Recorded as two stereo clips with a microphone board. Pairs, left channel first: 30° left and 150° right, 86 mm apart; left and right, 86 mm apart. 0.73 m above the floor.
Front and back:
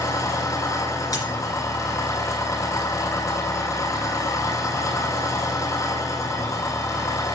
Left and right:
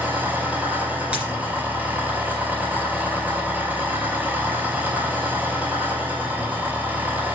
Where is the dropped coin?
15° right, 2.5 m.